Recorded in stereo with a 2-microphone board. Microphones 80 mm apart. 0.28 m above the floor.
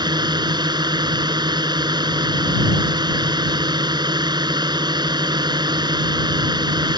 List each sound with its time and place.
0.0 s a drone: 70° right (ahead or behind)